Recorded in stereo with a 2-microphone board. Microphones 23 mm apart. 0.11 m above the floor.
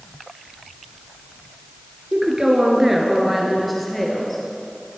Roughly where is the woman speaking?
Right.